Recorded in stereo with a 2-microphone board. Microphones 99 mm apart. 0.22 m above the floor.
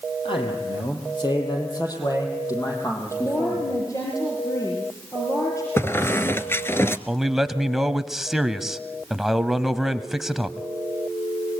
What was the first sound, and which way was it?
A man speaking, 55° left (ahead or behind).